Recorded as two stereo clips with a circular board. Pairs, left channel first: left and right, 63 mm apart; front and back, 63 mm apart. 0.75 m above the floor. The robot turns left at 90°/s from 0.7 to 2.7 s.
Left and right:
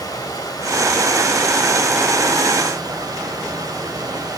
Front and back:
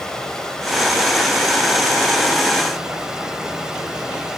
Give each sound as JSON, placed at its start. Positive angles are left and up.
{"t": 0.0, "sound": "running water", "azimuth_deg": 80, "distance_m": 3.0}